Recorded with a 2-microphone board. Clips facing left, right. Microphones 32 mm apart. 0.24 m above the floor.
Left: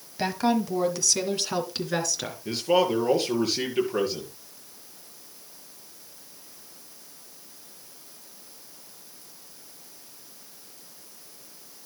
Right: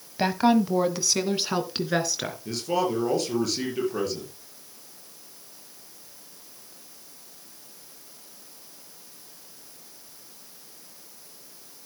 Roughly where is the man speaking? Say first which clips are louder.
Left 4 dB; left.